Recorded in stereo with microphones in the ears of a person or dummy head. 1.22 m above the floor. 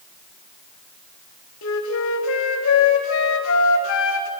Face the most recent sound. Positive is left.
turn(degrees=80)